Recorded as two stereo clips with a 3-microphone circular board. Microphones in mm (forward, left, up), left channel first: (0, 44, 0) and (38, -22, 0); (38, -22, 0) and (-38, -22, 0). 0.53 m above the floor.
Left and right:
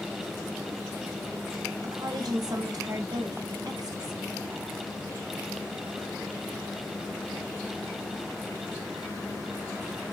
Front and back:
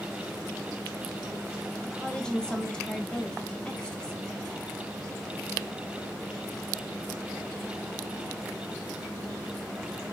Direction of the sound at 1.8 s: 80° right.